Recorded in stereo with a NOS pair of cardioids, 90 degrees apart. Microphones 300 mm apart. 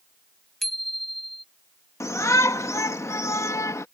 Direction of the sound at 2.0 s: 10° left.